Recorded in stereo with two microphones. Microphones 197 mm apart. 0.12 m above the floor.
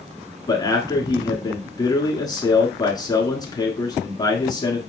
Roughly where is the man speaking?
Left.